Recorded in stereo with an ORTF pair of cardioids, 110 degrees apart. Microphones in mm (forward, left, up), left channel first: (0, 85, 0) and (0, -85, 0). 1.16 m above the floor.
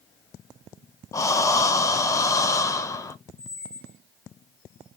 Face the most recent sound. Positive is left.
turn(degrees=-5)